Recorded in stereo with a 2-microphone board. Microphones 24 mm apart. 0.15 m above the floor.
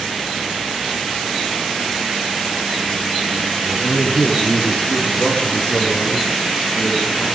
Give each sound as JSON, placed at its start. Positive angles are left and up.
{"t": 3.6, "sound": "a man speaking", "side_deg": 60, "distance_m": 3.0}